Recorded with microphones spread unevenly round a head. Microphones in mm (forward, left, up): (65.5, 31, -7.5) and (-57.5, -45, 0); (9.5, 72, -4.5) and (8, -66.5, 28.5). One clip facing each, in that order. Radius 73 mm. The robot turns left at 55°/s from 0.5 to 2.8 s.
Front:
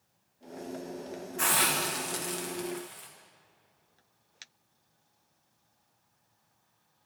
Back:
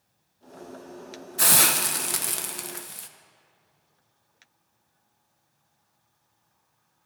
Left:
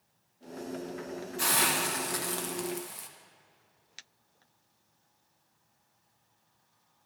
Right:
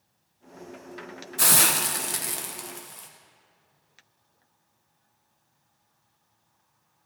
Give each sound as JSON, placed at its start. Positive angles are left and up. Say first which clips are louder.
{"t": 1.4, "sound": "a hiss", "louder": "back 3 dB, right 3 dB", "azimuth_deg": -105, "distance_m": 1.0}